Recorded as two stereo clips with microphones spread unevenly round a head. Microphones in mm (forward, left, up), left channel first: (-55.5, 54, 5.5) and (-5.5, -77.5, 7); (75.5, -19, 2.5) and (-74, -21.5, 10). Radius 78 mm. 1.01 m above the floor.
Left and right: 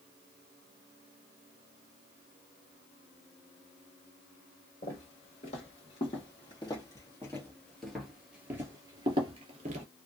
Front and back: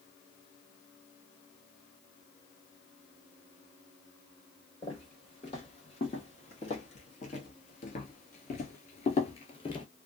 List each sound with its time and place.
4.8 s footsteps: 60° left, 2.5 m; by 9.9 s 50° right, 1.3 m